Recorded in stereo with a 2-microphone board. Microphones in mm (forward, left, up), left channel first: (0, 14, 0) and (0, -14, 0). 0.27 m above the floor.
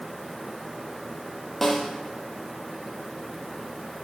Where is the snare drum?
10° left (ahead or behind), 2 m.